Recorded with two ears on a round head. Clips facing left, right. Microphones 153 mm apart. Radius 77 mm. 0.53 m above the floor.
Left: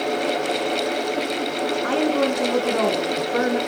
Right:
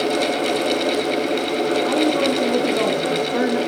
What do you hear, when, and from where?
1.8 s a woman speaking: 5° right (ahead or behind), 4.5 m